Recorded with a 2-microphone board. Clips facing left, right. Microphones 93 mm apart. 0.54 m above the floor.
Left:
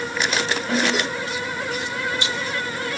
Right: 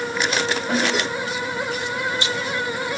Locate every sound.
0.7 s a snare drum: 15° right (ahead or behind), 3.5 m